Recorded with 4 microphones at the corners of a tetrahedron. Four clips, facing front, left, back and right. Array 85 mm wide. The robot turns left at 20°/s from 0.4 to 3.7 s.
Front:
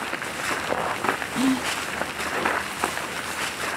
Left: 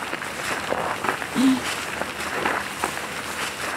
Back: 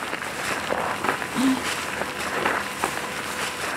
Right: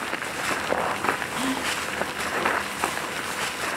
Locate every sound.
1.4 s whispering: 95° left, 1.3 m; by 1.7 s 90° left, 1.3 m